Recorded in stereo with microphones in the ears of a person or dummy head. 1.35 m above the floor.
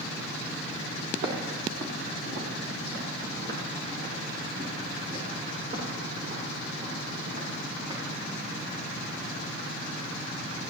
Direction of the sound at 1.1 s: 60° right (ahead or behind).